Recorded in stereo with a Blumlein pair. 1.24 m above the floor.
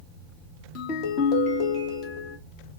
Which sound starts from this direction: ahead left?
A ringtone, at 0.8 s.